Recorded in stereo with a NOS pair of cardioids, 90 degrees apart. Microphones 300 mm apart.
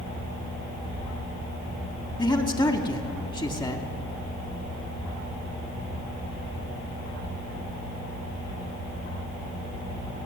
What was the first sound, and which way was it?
A man speaking, 15° left.